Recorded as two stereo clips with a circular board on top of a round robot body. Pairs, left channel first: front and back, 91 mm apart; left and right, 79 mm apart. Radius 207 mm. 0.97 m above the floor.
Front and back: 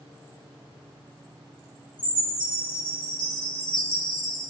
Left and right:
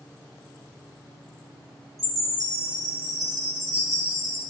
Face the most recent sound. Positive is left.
turn(degrees=-40)